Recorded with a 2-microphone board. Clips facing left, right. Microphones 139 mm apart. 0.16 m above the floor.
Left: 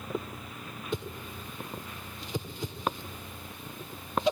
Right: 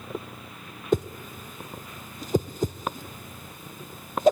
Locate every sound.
0.9 s a whoosh: 45° right (ahead or behind), 0.8 m